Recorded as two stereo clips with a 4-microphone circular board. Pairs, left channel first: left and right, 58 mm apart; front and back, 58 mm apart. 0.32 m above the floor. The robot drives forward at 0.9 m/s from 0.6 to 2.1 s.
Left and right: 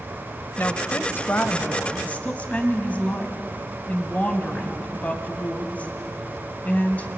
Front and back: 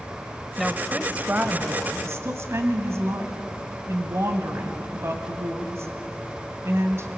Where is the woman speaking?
85° left, 1.0 m; by 7.1 s 155° left, 1.7 m.